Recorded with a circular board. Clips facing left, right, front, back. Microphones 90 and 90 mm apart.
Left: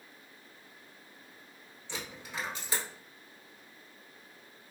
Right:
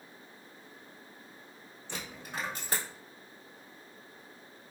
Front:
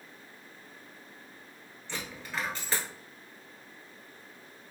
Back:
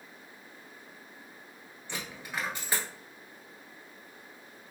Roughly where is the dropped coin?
Right.